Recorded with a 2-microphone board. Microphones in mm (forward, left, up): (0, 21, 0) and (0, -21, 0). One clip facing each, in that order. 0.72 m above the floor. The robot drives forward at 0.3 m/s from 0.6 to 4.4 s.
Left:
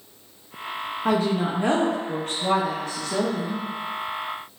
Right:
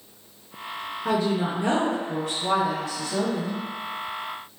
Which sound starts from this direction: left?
A woman speaking, at 1.1 s.